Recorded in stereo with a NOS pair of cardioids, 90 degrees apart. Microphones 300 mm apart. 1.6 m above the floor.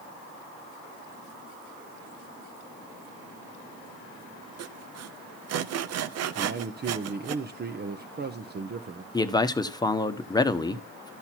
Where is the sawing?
55° right, 0.7 m.